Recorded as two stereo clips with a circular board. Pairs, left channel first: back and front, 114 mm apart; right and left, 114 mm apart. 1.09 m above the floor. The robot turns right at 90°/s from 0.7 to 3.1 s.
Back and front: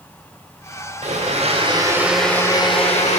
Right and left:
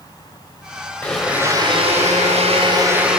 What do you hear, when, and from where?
1.0 s a blender: 15° right, 3.5 m; by 3.2 s 175° left, 3.5 m